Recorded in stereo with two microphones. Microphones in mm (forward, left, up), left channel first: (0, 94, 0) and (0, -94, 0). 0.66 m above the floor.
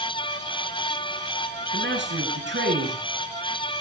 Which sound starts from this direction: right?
A man speaking, at 1.7 s.